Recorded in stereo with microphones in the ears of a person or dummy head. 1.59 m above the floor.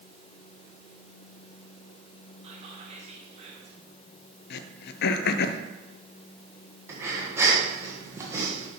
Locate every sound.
2.4 s whispering: 40° right (ahead or behind), 1.7 m
4.5 s throat clearing: 60° left (ahead or behind), 0.6 m
6.9 s breathing: 15° right (ahead or behind), 1.4 m